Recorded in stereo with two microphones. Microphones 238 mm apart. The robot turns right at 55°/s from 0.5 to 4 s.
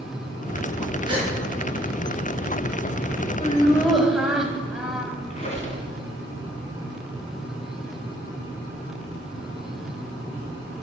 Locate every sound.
1.1 s a gasp: 15° right (ahead or behind), 4 m; by 1.3 s 30° right (ahead or behind), 4 m
3.4 s laughter: 150° left, 2 m; by 5.1 s straight behind, 2 m
5.3 s a squeak: 30° left (ahead or behind), 2 m